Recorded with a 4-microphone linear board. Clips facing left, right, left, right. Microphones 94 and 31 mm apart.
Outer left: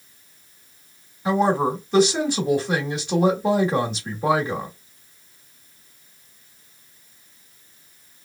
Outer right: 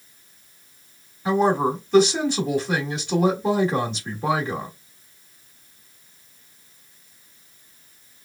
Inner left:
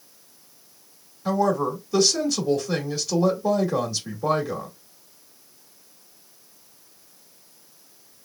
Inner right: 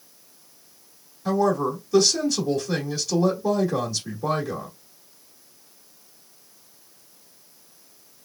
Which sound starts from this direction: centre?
A woman speaking, at 1.2 s.